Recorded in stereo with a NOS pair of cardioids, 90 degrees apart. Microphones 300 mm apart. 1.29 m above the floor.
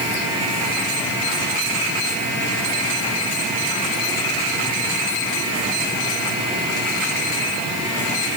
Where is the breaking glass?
I don't hear breaking glass.